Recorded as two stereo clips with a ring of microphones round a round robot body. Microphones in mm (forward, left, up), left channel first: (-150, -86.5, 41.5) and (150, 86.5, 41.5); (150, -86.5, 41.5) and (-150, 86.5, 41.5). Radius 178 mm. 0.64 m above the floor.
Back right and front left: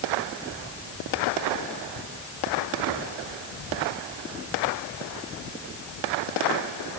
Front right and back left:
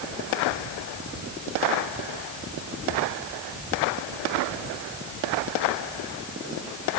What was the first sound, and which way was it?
Only background noise.